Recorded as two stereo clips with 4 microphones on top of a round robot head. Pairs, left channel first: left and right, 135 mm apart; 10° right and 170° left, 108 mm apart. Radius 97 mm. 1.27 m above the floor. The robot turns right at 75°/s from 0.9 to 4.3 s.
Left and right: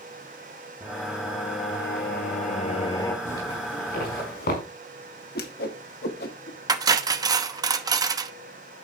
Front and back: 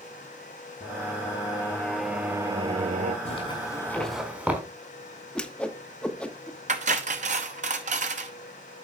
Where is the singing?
5° right, 1.5 m; by 3.1 s 160° left, 1.5 m.